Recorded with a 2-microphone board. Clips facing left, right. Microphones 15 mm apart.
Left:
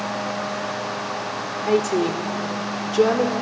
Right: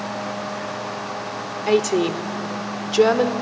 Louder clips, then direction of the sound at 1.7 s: Right 2 dB; 35° right (ahead or behind).